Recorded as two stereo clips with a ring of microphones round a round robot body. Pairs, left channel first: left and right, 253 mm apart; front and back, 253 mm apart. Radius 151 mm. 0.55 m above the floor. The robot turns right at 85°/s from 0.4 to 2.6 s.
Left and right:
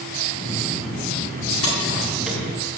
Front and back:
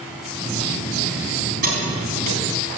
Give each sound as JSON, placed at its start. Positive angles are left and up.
{"t": 1.6, "sound": "keys jangling", "azimuth_deg": 125, "distance_m": 3.5}